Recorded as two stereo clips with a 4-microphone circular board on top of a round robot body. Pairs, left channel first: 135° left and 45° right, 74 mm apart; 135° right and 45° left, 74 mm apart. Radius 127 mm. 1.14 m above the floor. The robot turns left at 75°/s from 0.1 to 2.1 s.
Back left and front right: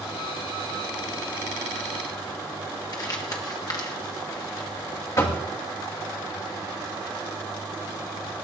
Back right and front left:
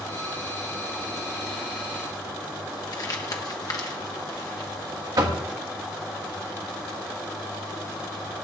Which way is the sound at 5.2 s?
85° left.